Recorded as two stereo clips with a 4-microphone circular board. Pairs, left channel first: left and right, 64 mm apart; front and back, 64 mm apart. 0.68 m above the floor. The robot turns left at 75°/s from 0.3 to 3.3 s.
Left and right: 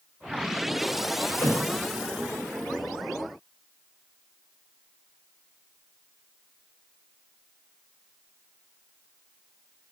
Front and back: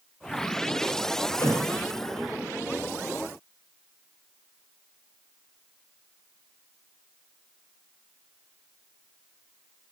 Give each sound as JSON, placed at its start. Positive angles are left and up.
{"t": 1.4, "sound": "a thud", "azimuth_deg": 50, "distance_m": 1.0}